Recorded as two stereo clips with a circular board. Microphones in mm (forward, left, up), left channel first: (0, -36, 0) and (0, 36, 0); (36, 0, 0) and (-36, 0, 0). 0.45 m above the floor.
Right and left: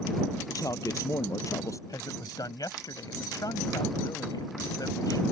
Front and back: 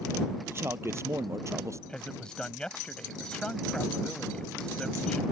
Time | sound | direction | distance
0.5 | a man speaking | 125° right | ?
1.9 | a man speaking | 80° right | ?